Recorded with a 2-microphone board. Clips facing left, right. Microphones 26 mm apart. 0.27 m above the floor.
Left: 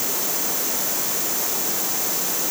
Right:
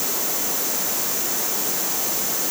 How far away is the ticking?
I don't hear ticking.